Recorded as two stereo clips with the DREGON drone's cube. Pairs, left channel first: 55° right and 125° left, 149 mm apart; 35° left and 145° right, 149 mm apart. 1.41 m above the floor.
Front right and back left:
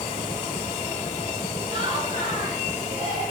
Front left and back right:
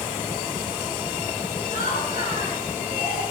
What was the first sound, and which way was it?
Laughter, 70° left.